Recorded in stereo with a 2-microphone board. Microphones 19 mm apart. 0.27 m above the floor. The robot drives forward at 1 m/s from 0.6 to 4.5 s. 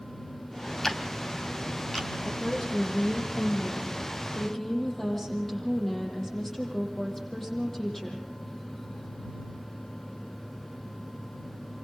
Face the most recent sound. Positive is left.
turn(degrees=20)  # may be behind; listen again after turning